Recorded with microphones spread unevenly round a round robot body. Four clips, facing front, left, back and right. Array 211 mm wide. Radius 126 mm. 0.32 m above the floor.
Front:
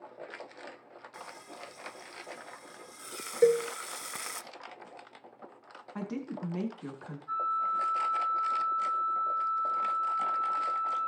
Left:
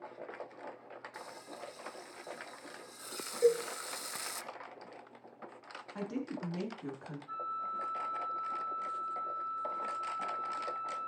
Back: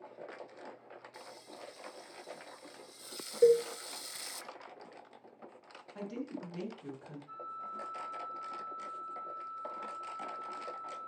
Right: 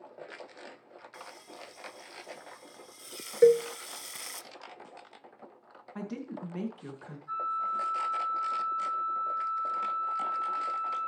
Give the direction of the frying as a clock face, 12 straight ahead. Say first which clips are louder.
Right 2 dB, front 7 dB; 11 o'clock.